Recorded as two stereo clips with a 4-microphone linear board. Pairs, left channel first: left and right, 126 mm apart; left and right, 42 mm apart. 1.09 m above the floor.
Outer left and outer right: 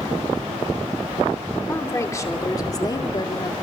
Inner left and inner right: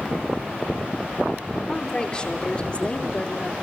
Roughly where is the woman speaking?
Left.